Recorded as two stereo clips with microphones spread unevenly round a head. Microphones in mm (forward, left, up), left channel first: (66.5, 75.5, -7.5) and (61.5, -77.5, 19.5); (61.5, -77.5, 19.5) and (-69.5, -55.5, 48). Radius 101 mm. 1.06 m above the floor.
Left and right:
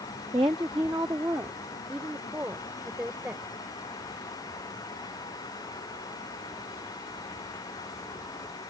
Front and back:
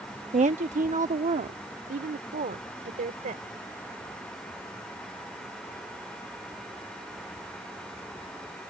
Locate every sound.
0.3 s a woman speaking: 160° right; by 3.4 s 175° right